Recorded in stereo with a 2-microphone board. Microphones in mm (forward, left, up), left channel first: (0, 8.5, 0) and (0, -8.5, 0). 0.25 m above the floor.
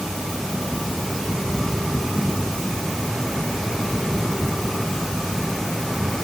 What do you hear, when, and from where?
Only background noise.